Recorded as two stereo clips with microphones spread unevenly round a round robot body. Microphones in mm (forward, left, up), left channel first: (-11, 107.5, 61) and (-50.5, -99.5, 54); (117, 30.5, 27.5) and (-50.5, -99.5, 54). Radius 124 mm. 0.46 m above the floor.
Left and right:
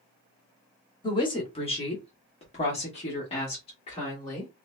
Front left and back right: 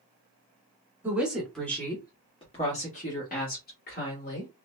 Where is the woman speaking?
130° left, 1.1 m; by 4.5 s 15° left, 1.8 m.